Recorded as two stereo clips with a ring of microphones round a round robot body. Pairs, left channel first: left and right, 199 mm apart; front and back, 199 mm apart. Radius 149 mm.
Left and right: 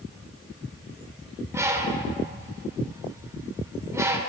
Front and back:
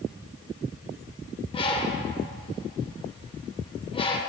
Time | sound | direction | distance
1.5 | a bird | 30° right | 1.3 m